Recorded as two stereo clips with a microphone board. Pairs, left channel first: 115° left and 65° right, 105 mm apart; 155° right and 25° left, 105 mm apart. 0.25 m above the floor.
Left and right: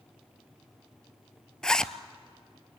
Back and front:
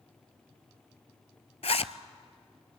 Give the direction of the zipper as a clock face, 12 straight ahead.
5 o'clock.